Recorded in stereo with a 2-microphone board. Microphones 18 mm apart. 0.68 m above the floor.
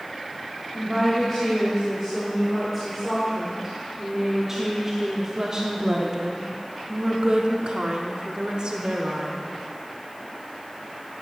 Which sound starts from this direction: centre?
A woman speaking, at 0.8 s.